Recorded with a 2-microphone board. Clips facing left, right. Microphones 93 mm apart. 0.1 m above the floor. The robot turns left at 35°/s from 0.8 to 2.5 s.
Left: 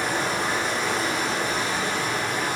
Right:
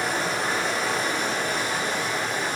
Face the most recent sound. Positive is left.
turn(degrees=125)